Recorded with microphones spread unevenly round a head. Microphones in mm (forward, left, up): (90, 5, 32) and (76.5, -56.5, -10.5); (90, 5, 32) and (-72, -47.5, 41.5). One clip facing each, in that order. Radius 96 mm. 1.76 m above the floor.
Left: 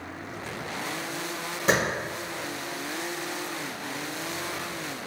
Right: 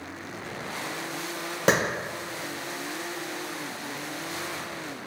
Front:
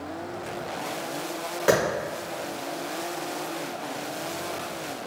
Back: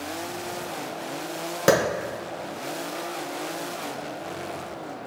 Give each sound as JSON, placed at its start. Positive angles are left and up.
{"t": 1.7, "sound": "a clap", "azimuth_deg": -135, "distance_m": 1.2}